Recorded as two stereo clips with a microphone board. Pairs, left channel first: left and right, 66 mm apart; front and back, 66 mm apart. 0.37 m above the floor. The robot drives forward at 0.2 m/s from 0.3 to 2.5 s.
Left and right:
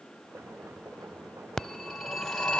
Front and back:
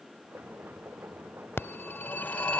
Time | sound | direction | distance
1.6 | a phone ringing | 5° left | 0.8 m